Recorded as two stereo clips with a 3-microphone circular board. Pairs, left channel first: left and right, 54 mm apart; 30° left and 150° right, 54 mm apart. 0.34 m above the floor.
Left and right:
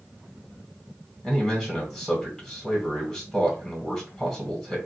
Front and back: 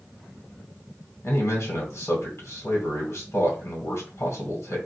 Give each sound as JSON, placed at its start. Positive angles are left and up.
{"t": 1.2, "sound": "a man speaking", "azimuth_deg": 0, "distance_m": 1.7}